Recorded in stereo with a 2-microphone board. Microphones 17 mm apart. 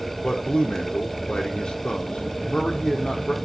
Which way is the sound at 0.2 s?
75° left (ahead or behind).